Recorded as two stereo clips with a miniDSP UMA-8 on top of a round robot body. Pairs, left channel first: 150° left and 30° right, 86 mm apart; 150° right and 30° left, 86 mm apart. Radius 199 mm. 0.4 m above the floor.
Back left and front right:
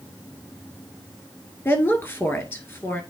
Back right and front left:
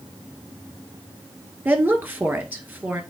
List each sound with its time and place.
1.6 s a woman speaking: 95° left, 2 m